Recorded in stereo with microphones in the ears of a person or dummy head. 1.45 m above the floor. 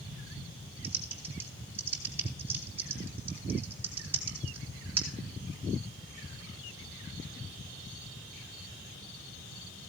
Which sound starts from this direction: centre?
Typing on a keyboard, at 0.8 s.